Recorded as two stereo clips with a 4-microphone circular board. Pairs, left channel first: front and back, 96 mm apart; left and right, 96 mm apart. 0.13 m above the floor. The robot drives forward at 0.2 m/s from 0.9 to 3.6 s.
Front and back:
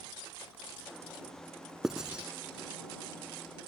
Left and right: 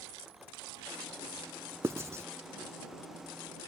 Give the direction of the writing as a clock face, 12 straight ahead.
3 o'clock.